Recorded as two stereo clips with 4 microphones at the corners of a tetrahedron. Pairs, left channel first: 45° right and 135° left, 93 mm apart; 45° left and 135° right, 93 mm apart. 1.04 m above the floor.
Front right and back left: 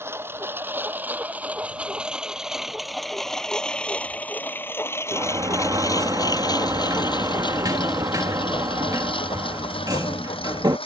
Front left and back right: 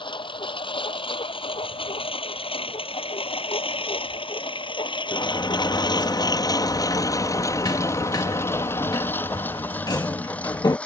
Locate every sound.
0.0 s a lawn mower: 70° left; by 10.9 s 30° right
5.1 s a sliding door: 90° left